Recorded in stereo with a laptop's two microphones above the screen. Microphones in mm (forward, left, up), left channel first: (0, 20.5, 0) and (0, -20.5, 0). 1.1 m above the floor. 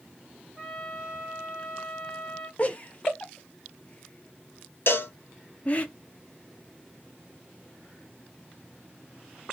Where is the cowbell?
60° left (ahead or behind), 0.6 m.